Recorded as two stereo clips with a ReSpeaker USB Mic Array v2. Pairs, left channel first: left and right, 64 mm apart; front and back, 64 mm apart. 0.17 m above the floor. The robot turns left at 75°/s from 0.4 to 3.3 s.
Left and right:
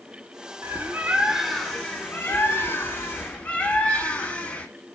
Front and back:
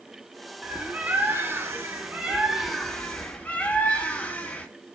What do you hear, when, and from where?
0.6 s a bird: 115° right, 0.7 m; by 4.7 s 40° left, 0.7 m